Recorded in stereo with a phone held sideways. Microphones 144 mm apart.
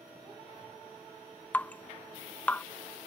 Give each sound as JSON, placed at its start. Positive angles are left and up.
{"t": 1.5, "sound": "dripping", "side_deg": 10}